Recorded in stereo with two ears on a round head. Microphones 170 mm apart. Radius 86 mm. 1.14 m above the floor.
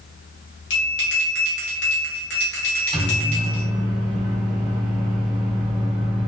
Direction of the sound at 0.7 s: 65° left (ahead or behind).